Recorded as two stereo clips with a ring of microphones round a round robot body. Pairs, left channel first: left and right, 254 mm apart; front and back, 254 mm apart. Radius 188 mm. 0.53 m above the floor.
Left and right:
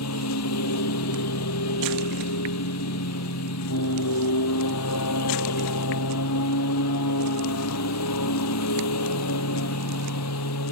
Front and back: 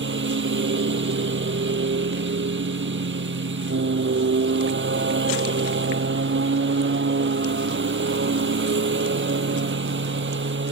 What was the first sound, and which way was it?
A lawn mower, 135° left.